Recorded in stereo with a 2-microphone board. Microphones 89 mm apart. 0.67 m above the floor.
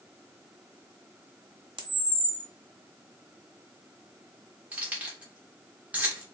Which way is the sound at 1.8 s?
75° right (ahead or behind).